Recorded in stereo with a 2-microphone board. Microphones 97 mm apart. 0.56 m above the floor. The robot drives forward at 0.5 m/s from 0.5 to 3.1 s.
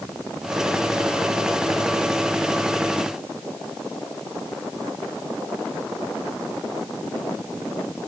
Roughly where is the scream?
No scream in this recording.